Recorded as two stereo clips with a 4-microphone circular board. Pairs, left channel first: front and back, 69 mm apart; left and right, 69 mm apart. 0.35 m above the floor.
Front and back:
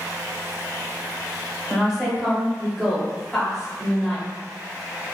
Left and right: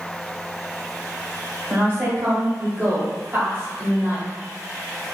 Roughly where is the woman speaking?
Right.